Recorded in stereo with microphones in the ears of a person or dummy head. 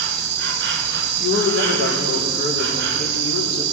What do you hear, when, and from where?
0.0 s an insect: 65° right (ahead or behind), 1.4 m
1.2 s a man speaking: 45° left (ahead or behind), 3 m